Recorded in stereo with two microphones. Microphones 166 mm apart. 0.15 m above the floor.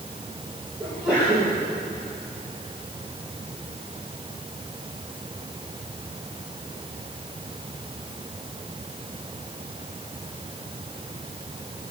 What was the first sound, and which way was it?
A sneeze, 5° right (ahead or behind).